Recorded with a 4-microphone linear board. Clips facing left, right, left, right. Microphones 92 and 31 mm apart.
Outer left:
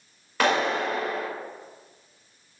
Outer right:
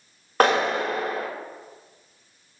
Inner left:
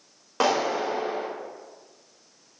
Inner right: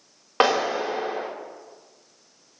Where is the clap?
40° right (ahead or behind), 3.5 m.